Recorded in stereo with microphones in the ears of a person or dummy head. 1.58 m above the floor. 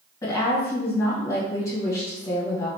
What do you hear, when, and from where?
0.2 s a woman speaking: 25° left (ahead or behind), 1.5 m